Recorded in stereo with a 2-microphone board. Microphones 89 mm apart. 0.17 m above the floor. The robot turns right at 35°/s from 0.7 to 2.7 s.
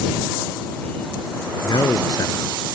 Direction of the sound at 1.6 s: 105° left.